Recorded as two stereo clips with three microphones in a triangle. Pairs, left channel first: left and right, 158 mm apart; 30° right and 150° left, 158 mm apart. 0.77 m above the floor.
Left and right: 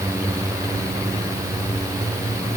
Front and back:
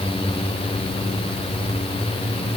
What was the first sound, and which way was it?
Only background noise.